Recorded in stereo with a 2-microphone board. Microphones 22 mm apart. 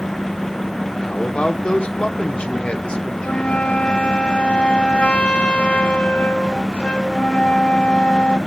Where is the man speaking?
60° left (ahead or behind), 1.3 m.